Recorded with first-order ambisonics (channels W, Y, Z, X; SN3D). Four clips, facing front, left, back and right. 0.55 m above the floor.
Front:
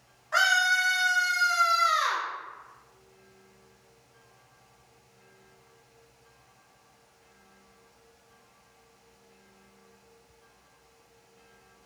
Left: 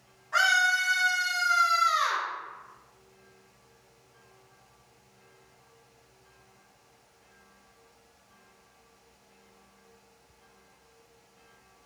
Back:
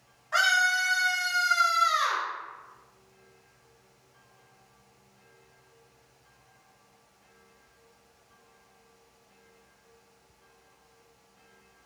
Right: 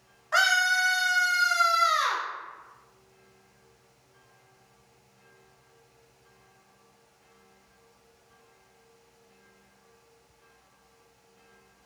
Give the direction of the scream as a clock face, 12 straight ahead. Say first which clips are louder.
Right 1 dB, front 1 dB; 3 o'clock.